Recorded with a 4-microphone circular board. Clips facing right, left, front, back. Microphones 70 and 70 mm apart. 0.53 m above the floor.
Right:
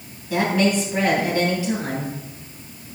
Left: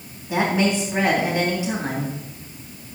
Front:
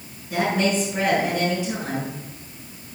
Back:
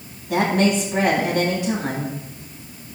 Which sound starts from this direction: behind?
A woman speaking, at 0.3 s.